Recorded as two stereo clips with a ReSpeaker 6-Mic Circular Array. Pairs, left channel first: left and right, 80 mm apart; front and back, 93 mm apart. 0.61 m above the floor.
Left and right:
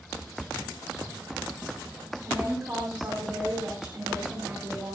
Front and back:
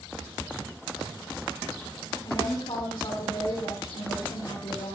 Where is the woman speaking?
10° right, 8 m.